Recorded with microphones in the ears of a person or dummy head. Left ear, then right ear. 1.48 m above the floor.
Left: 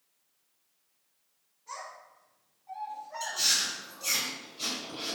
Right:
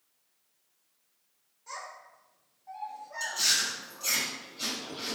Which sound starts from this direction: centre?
Chewing, at 3.2 s.